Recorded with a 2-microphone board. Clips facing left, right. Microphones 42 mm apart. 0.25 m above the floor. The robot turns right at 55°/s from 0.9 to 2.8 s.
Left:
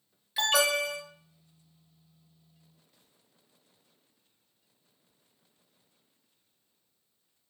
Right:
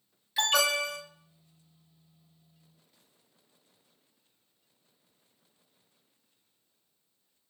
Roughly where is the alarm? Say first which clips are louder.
Left 1 dB; centre.